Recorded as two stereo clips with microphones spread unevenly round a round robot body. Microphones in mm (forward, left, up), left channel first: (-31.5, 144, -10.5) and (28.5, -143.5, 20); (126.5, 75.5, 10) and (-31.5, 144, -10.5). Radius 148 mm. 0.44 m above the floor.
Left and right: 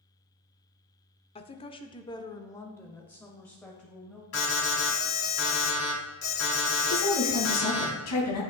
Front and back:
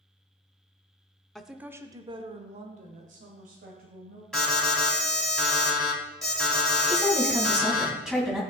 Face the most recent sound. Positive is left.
turn(degrees=70)